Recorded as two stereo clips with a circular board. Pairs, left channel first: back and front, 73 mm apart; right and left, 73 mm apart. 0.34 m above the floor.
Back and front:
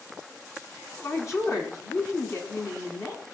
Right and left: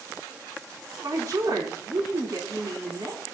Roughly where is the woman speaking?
Behind left.